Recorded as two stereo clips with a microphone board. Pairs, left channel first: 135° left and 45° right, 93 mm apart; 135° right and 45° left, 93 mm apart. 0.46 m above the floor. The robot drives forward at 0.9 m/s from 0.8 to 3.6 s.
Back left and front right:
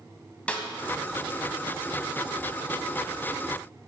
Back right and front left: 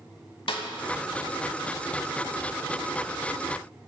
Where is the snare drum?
150° right, 0.6 m.